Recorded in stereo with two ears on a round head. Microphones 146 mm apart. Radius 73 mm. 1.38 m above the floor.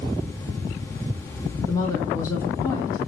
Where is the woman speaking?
20° left (ahead or behind), 1.2 m.